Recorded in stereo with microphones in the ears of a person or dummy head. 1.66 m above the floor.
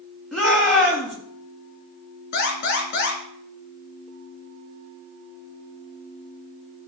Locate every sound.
0.3 s a shout: centre (ahead or behind), 4 m
2.3 s an alarm: 55° left (ahead or behind), 3.5 m